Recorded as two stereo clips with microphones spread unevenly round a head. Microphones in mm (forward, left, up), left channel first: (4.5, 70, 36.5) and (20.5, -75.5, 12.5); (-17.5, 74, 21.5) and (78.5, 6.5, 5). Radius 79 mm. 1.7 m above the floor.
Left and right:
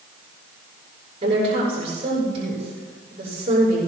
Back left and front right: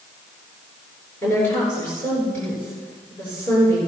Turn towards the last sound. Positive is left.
turn(degrees=-140)